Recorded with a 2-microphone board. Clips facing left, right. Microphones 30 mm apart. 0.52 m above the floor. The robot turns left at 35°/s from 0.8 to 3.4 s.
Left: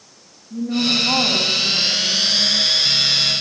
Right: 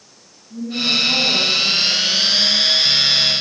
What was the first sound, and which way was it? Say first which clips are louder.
A woman speaking: even; 150° left.